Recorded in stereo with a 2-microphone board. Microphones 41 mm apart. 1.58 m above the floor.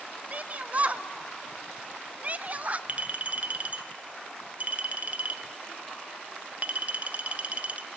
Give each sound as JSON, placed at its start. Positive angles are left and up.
{"t": 0.3, "sound": "a shout", "side_deg": -35, "distance_m": 0.9}
{"t": 2.9, "sound": "a clink", "side_deg": -35, "distance_m": 0.8}